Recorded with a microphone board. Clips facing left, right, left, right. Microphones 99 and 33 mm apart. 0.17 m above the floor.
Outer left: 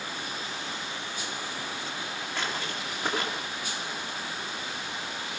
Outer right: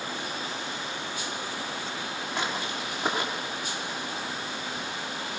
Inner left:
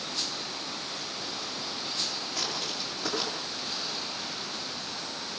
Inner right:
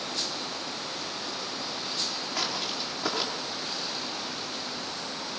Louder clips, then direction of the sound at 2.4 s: Outer right 2 dB, inner right 3 dB; 15° right (ahead or behind).